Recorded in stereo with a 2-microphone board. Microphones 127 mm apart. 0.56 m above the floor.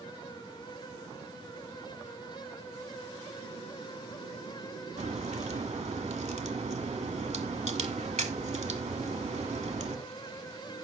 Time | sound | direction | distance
5.0 | a crack | 65° right (ahead or behind) | 1.5 m